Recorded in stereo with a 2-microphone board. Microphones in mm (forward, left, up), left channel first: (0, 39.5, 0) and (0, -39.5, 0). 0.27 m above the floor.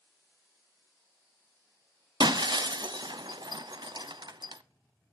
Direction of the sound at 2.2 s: 70° right (ahead or behind).